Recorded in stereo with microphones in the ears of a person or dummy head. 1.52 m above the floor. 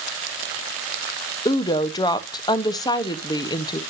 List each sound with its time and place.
1.4 s a woman speaking: 20° left (ahead or behind), 0.7 m